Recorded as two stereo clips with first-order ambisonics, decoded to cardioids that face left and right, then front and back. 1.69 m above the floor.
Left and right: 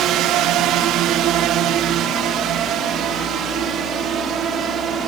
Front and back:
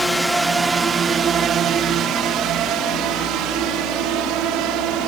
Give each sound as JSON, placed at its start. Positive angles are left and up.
{"t": 0.0, "sound": "a drone", "azimuth_deg": -85}